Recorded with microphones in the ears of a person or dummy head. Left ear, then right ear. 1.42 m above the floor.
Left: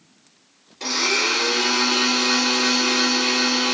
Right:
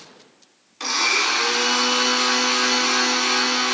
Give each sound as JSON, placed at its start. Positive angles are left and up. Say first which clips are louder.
{"t": 0.8, "sound": "a blender", "louder": "right 1 dB", "side_deg": -40, "distance_m": 1.5}